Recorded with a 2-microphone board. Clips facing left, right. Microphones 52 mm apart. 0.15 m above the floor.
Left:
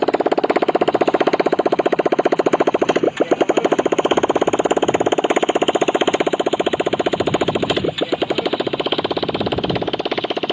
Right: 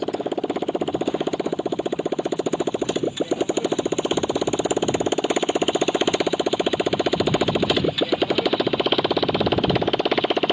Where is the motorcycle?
75° left (ahead or behind); by 10.5 s 5° right (ahead or behind).